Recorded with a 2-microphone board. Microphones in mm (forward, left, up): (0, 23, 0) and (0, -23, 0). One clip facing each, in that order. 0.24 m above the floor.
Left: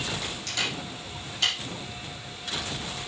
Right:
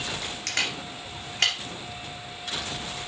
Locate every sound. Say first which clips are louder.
0.5 s a camera shutter: right 3 dB; 55° right (ahead or behind), 3 m